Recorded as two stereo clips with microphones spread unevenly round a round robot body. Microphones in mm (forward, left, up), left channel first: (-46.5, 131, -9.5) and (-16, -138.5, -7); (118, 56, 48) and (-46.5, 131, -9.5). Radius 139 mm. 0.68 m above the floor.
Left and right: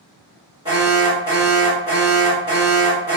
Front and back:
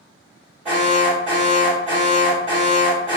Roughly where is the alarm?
Behind right.